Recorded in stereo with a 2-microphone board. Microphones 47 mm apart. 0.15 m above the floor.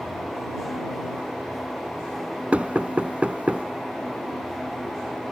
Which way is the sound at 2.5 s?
30° right (ahead or behind).